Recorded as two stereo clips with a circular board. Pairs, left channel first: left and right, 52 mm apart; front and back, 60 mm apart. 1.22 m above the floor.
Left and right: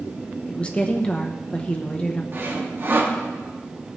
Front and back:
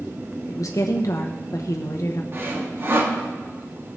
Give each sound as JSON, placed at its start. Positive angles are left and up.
{"t": 0.5, "sound": "a woman speaking", "azimuth_deg": 25, "distance_m": 0.8}
{"t": 2.3, "sound": "sawing", "azimuth_deg": -130, "distance_m": 1.5}